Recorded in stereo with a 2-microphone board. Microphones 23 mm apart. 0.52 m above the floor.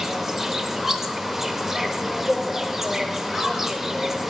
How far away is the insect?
About 0.9 m.